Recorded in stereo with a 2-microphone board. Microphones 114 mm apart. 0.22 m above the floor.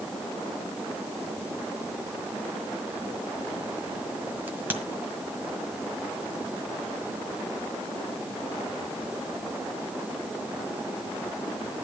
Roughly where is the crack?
Centre.